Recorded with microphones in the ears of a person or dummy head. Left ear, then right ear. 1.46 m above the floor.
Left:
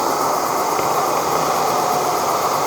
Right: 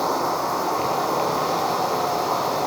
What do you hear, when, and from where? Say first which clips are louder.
0.0 s an insect: left 4 dB; 65° left (ahead or behind), 7.5 m